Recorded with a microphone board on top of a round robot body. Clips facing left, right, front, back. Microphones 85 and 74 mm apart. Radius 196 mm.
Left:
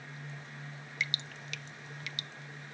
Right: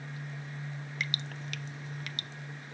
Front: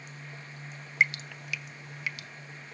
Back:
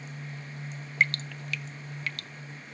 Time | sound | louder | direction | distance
1.0 | dripping | even, even | 80° right | 0.6 m